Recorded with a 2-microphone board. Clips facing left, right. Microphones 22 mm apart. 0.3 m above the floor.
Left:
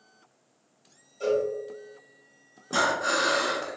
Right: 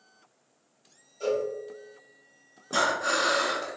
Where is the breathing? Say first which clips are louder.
Left 1 dB; 5° left (ahead or behind), 0.6 m.